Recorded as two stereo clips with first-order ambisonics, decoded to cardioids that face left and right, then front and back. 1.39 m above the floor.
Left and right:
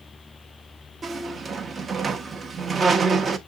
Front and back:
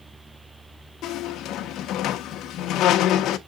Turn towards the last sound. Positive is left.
turn(degrees=-25)